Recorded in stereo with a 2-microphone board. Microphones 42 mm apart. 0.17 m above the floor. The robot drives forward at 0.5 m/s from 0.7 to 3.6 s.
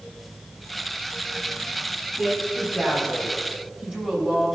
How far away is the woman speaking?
About 6 m.